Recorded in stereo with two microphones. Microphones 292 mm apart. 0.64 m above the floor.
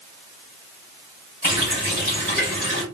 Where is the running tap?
30° left (ahead or behind), 1.5 m.